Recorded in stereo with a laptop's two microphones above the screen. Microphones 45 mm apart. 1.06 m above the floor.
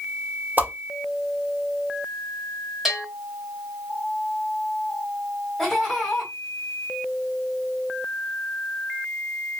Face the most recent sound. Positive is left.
turn(degrees=5)  # may be behind; listen again after turning